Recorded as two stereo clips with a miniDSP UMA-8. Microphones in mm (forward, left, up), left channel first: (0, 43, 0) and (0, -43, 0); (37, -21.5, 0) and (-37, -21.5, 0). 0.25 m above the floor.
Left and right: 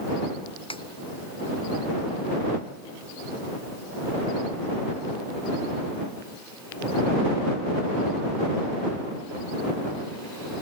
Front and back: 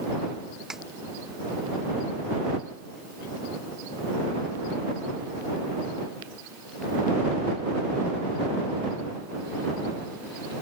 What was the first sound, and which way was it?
A snare drum, 95° left.